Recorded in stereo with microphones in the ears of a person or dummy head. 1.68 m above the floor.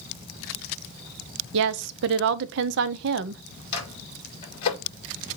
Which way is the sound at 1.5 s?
75° right (ahead or behind).